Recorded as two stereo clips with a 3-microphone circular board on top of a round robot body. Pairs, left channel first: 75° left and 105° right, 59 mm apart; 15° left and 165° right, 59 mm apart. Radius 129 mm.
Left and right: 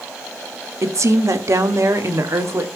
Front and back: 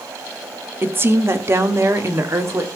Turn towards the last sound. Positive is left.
turn(degrees=-135)